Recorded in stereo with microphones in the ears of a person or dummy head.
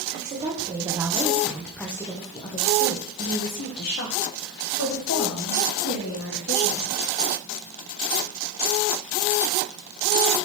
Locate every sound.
0.1 s a woman speaking: 25° right (ahead or behind), 1.4 m; by 7.0 s 80° left, 3 m